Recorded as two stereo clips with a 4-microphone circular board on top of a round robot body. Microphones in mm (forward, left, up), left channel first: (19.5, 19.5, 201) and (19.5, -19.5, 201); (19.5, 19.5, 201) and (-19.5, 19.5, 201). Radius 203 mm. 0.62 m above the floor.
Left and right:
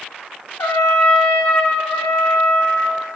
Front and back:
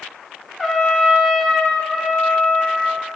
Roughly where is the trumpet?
Left.